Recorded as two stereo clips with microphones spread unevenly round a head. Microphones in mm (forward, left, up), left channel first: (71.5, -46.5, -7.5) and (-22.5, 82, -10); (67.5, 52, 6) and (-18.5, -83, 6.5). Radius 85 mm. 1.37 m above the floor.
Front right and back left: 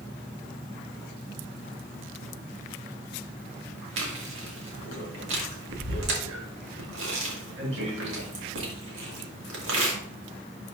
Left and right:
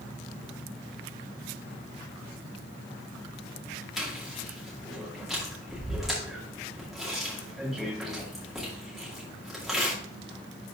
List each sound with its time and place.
4.0 s chewing: 150° left, 2 m